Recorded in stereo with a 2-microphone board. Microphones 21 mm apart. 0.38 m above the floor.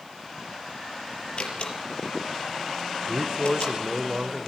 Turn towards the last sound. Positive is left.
turn(degrees=-35)  # may be behind; listen again after turning